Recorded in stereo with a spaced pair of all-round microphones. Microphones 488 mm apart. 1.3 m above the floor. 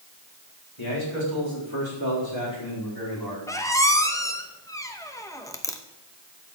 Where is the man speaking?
65° left (ahead or behind), 3.5 m; by 3.4 s 50° left (ahead or behind), 4.5 m.